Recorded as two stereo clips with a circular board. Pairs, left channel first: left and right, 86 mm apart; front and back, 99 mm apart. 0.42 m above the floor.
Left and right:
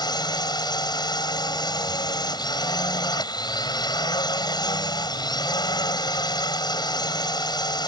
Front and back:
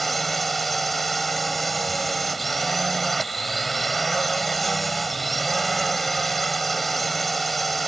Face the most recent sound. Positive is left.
turn(degrees=90)